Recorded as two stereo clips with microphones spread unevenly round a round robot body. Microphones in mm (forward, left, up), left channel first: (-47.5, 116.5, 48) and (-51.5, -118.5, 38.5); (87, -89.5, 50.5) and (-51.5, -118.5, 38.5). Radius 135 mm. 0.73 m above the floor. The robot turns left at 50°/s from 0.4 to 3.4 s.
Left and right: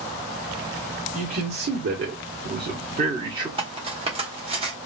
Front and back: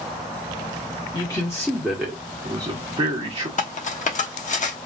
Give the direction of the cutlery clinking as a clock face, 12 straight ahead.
1 o'clock.